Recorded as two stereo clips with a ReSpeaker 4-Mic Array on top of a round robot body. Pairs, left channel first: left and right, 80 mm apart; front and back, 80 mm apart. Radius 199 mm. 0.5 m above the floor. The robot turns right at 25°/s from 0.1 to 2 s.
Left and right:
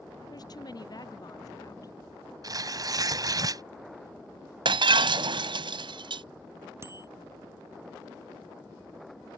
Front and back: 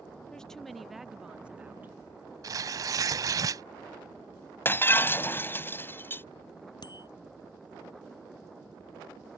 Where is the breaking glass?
65° right.